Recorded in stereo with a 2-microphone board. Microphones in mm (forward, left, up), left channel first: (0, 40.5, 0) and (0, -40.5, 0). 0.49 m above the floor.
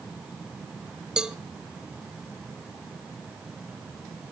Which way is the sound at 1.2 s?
10° right (ahead or behind).